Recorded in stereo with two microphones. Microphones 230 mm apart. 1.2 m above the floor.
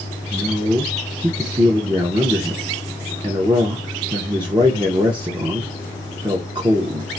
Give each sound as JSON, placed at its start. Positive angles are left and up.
{"t": 0.3, "sound": "a man speaking", "side_deg": -20, "distance_m": 0.5}